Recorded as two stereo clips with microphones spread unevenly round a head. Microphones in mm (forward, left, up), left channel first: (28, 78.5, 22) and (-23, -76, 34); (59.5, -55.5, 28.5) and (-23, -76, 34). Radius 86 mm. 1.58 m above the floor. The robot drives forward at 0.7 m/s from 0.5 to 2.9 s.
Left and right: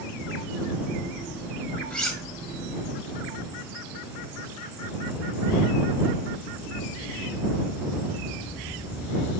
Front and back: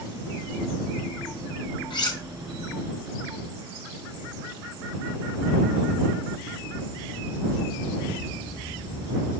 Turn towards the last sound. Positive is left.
turn(degrees=-30)